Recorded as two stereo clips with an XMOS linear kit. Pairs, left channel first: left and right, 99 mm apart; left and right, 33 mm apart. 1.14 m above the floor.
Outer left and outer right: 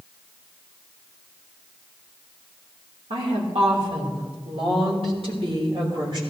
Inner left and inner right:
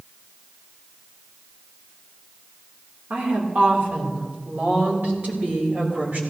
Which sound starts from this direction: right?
A woman speaking, at 3.1 s.